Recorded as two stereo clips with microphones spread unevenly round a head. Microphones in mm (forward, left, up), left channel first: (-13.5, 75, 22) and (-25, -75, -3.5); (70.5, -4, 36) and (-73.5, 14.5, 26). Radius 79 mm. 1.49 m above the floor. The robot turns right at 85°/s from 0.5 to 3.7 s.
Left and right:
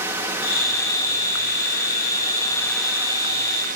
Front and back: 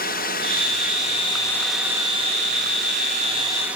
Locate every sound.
0.0 s a drone: 20° right; by 3.8 s 110° right